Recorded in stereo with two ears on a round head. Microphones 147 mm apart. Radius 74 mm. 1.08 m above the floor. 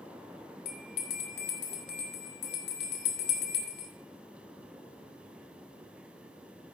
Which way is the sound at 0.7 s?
65° left (ahead or behind).